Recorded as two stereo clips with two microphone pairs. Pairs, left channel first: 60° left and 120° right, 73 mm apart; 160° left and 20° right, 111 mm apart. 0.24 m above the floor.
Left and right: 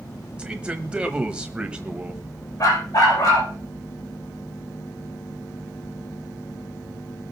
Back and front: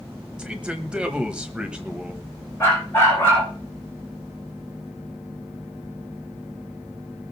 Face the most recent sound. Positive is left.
turn(degrees=90)